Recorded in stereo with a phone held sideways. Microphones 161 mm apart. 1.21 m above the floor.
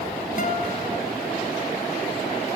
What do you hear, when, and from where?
0.4 s a guitar: 55° left (ahead or behind), 1.4 m